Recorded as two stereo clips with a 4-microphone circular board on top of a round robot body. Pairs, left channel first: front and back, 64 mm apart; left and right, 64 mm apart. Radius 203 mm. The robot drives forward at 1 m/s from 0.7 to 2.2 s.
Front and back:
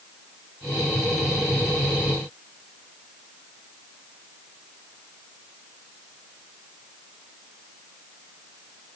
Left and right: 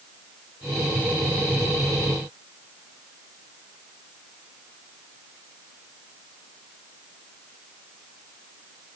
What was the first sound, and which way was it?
Only background noise.